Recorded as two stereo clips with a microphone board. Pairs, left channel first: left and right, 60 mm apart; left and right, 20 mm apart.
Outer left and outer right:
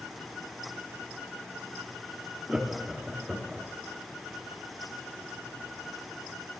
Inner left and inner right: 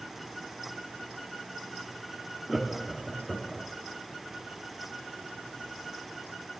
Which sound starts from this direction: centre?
Laughter, at 2.5 s.